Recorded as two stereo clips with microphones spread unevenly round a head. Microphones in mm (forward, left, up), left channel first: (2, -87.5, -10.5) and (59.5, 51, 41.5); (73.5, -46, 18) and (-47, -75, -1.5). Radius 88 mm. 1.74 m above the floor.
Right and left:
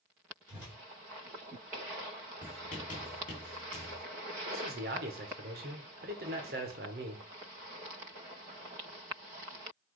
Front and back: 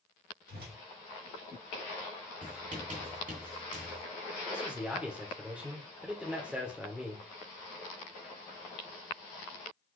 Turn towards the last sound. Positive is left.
turn(degrees=110)